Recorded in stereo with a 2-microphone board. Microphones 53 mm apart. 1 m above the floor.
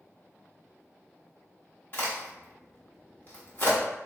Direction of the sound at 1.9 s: 40° left (ahead or behind).